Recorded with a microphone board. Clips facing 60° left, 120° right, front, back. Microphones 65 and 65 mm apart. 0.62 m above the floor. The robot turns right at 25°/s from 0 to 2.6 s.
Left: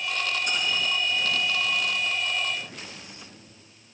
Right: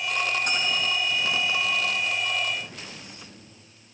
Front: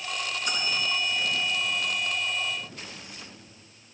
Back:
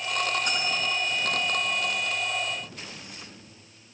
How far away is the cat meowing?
I don't hear a cat meowing.